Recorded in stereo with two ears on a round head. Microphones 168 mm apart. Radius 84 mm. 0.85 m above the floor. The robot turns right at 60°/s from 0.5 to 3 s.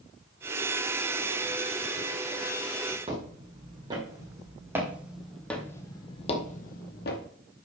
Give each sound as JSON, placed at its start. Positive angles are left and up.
{"t": 3.1, "sound": "footsteps", "side_deg": -30, "distance_m": 3.0}